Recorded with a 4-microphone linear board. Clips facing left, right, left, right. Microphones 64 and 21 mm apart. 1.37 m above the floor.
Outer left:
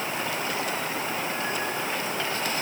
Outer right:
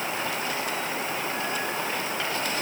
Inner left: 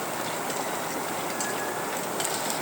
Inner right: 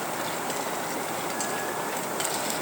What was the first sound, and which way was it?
Only background noise.